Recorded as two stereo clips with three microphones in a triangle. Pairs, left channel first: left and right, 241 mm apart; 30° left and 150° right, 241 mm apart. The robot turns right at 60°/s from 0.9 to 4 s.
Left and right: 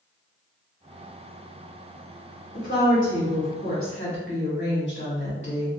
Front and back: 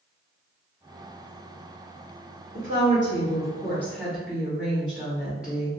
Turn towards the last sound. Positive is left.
turn(degrees=125)